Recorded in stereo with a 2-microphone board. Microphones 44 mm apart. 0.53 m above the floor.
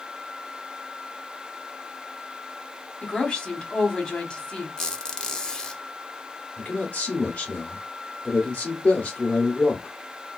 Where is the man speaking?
30° left (ahead or behind), 0.9 m.